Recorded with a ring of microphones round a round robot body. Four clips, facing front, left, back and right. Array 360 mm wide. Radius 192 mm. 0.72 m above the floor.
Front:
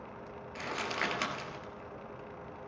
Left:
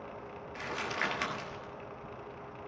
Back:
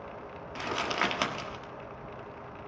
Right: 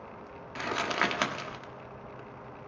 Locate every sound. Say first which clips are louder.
0.6 s crumpling: right 6 dB, back 5 dB; 125° right, 1.7 m